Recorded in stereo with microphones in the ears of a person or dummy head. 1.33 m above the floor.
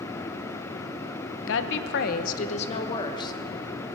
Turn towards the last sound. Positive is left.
turn(degrees=20)  # may be behind; listen again after turning